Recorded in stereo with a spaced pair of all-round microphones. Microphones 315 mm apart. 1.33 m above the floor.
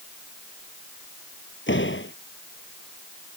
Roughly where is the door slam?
Left.